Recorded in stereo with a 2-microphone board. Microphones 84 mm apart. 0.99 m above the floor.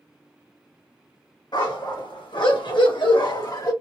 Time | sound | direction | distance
1.5 | a dog barking | 65° left (ahead or behind) | 2.0 m